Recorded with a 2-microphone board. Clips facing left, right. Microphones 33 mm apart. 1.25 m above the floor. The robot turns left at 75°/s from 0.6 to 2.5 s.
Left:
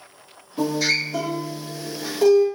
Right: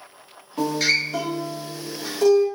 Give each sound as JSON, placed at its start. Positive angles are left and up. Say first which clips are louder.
{"t": 0.6, "sound": "a guitar", "louder": "right 1 dB", "side_deg": -55, "distance_m": 0.8}